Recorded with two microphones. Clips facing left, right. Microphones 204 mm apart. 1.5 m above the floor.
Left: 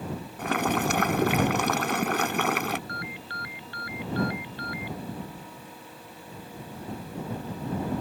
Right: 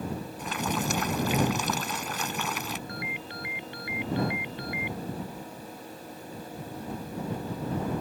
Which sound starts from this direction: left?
Boiling, at 0.4 s.